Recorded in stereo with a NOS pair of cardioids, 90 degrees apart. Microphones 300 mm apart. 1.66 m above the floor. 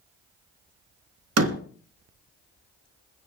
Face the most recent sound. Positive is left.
turn(degrees=-55)